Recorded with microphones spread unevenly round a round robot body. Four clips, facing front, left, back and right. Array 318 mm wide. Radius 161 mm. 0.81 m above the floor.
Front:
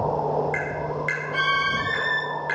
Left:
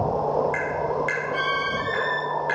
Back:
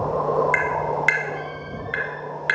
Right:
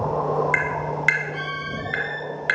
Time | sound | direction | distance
0.5 | tapping | 130° right | 3.5 m